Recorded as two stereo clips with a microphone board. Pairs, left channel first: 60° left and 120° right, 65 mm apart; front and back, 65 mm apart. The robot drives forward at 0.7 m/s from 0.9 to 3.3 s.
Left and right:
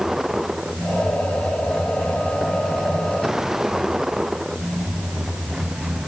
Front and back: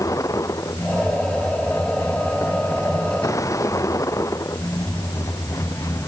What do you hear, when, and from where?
0.0 s a vehicle: 35° right